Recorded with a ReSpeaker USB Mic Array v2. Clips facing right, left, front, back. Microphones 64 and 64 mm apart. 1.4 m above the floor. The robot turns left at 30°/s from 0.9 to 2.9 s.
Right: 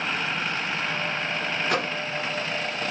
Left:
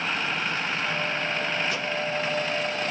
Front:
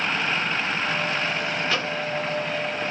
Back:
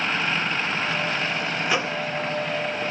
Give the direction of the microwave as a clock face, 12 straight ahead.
4 o'clock.